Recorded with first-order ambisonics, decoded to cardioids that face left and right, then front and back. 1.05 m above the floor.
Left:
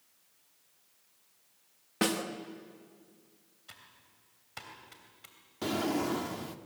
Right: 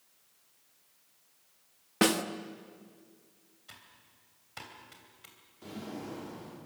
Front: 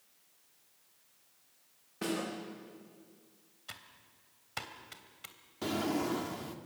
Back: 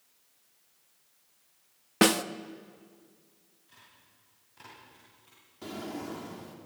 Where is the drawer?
65° left, 1.4 m.